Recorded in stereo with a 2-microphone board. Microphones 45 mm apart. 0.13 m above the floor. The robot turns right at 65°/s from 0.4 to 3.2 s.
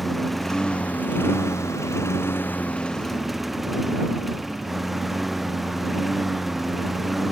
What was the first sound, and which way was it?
A lawn mower, 5° left.